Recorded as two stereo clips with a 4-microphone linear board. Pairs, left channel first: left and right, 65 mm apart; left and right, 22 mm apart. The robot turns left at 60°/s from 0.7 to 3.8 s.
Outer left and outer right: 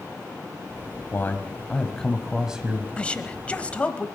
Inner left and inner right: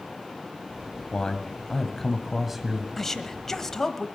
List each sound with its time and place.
1.1 s a man speaking: 70° left, 1.5 m; by 2.9 s 35° right, 1.5 m
3.0 s a woman speaking: 15° left (ahead or behind), 1.0 m; by 4.1 s 20° left (ahead or behind), 1.0 m